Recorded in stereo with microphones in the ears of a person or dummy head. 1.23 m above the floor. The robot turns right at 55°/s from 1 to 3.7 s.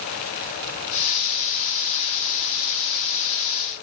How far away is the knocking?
I don't hear knocking.